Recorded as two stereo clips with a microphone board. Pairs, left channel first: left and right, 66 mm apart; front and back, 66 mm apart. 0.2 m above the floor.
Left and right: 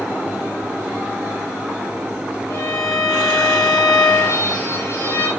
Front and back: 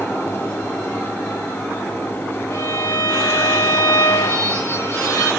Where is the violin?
40° left, 6.5 m.